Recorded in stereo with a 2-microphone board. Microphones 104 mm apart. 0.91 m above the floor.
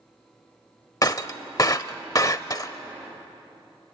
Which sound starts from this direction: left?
Breaking glass, at 1.0 s.